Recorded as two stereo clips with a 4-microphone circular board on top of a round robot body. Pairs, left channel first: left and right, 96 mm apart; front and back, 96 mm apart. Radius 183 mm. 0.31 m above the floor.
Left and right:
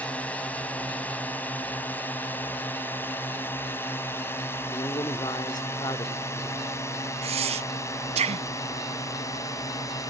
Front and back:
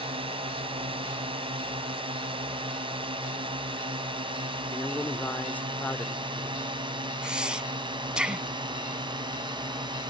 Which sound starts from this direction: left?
A man speaking, at 4.7 s.